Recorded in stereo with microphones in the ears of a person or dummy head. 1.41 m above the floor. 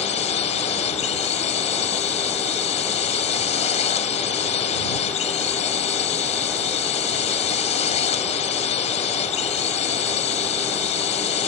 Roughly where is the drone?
Left.